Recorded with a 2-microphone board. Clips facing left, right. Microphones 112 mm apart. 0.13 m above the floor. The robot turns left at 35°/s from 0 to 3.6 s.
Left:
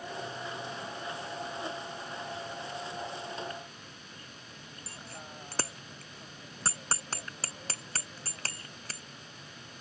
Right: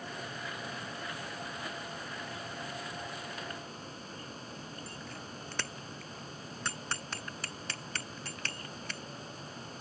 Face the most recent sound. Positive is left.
turn(degrees=35)  # may be behind; listen again after turning